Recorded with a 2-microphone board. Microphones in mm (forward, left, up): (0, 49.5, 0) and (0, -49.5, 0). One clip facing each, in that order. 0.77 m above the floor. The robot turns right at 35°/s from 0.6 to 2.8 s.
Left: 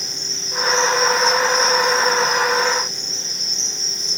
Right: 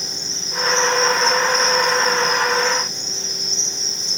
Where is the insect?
165° right, 6 m; by 4.2 s 90° right, 6 m.